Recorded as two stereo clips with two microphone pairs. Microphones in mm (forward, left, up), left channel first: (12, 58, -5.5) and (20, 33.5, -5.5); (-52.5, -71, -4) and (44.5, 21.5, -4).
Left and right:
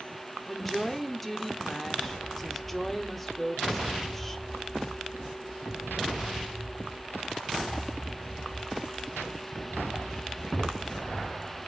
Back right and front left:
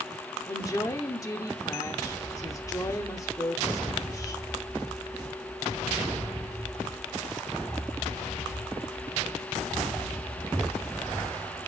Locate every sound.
0.5 s a woman speaking: straight behind, 1.0 m